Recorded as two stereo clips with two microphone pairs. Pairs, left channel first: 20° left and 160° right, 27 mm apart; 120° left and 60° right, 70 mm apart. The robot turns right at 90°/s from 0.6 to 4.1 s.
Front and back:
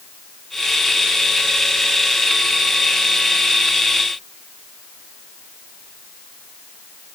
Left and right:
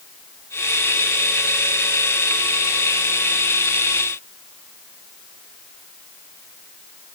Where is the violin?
No violin in this recording.